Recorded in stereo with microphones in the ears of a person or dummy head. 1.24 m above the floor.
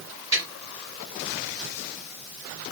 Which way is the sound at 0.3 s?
15° right (ahead or behind).